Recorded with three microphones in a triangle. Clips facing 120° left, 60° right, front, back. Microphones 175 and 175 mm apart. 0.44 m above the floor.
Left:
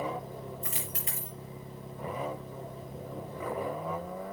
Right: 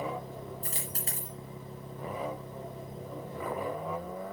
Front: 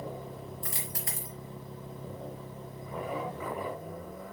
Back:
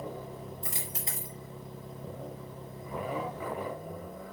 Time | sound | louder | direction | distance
0.6 | a dropped coin | even, even | 110° right | 4.5 m